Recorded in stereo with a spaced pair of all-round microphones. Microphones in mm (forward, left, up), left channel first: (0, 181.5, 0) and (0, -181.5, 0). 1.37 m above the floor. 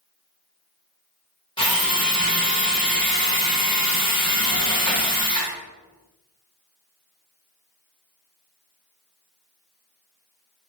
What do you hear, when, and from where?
1.6 s a drill: 15° left (ahead or behind), 0.8 m